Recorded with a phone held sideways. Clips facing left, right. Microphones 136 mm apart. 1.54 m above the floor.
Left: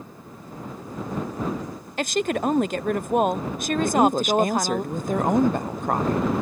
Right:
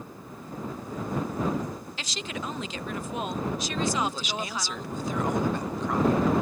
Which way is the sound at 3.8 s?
50° left (ahead or behind).